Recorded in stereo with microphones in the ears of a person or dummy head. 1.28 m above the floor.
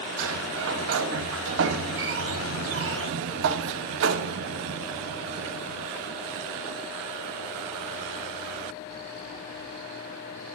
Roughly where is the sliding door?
Right.